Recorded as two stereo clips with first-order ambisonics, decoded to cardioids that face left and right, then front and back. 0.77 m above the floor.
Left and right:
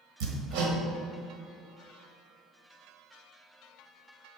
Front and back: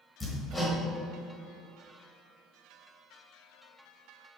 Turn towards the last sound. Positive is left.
turn(degrees=-75)